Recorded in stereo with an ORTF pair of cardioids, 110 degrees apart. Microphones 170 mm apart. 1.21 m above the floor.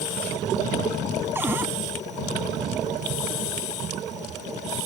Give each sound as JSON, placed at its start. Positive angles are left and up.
{"t": 1.4, "sound": "a cupboard door", "azimuth_deg": -10}